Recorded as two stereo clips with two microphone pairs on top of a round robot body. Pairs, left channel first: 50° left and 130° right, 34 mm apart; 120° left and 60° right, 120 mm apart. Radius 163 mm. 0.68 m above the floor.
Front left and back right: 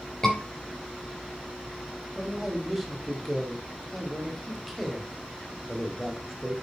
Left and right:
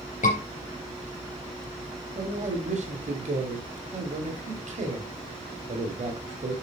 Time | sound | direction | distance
0.2 | a scream | 120° left | 3.5 m
2.1 | a man speaking | 45° right | 2 m